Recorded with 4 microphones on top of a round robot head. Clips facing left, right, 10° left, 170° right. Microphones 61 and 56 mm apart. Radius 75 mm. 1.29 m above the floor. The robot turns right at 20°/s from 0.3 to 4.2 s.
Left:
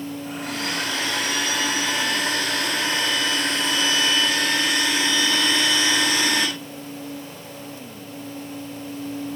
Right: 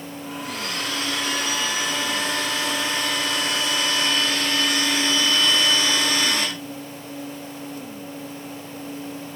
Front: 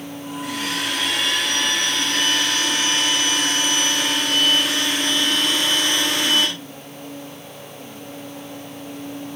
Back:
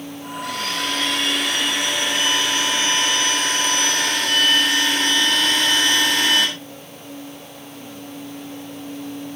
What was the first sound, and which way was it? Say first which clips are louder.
A blender: left 2 dB, back 1 dB; 75° left.